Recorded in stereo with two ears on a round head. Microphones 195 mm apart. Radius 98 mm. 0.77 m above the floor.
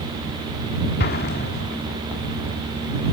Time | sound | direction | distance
1.0 | an explosion | 45° left (ahead or behind) | ?